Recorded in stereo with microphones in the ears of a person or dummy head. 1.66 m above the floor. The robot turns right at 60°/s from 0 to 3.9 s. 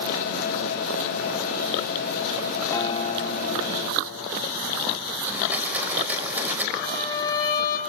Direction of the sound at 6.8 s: 30° left (ahead or behind).